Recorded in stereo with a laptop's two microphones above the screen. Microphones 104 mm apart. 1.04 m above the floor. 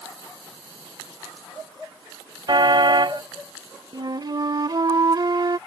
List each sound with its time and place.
2.5 s a car horn: 50° right (ahead or behind)
3.9 s a flute: 45° right (ahead or behind)